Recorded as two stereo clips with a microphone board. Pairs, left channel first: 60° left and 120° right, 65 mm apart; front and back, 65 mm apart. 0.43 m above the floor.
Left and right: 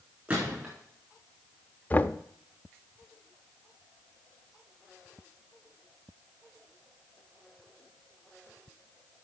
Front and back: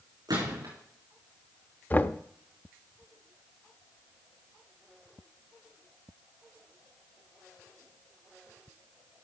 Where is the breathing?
I don't hear breathing.